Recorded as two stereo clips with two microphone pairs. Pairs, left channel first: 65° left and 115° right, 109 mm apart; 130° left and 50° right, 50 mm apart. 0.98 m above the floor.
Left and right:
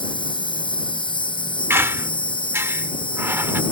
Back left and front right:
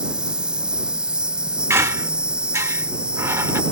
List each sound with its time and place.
0.0 s an insect: 25° left
1.7 s a squeak: 55° right